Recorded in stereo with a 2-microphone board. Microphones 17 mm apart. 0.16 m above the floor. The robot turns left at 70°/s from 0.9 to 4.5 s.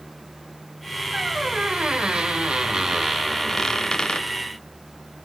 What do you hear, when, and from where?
1.1 s a squeak: 25° right, 2.5 m; by 4.3 s 115° left, 2.5 m